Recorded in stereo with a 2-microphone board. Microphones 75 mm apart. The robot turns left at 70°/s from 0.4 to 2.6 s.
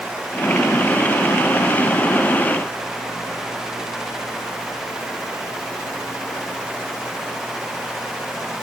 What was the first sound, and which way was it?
Only background noise.